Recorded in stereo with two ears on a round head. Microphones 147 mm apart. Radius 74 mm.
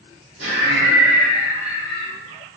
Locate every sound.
0.4 s laughter: 80° right, 1.9 m